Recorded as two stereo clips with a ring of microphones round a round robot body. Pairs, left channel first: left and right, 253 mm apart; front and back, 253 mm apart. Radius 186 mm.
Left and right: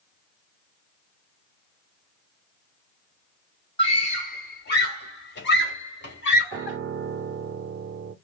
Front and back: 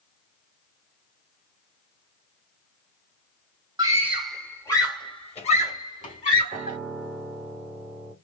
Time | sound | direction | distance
3.8 | a scream | 130° left | 1.6 m
6.5 | a piano | 90° right | 0.5 m